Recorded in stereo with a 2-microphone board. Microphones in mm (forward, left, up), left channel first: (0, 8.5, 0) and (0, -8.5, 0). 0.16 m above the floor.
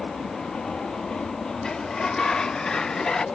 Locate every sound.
0.0 s an aircraft: 65° left (ahead or behind); by 3.4 s 70° left (ahead or behind)
1.6 s a sliding door: 50° left (ahead or behind)